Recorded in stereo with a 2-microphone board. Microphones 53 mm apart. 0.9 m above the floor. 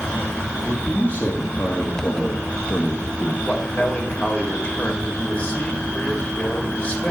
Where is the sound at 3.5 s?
30° left (ahead or behind), 2 m.